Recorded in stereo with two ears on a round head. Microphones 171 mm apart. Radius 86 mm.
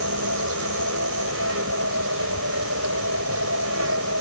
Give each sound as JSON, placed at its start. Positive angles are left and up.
{"t": 0.0, "sound": "an insect", "side_deg": -80}